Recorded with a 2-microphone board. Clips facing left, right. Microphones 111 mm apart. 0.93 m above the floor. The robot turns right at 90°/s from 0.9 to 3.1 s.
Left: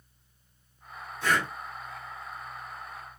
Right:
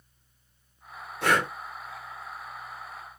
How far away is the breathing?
About 0.8 m.